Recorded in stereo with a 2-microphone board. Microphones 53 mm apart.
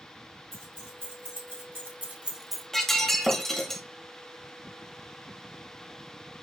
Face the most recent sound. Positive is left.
turn(degrees=5)  # may be behind; listen again after turning